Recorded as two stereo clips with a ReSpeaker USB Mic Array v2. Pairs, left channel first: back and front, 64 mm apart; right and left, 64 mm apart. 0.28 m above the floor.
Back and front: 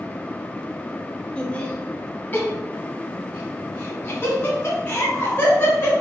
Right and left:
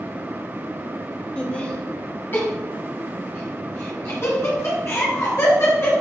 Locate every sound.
1.4 s laughter: 135° right, 1.0 m; by 5.9 s 125° right, 3 m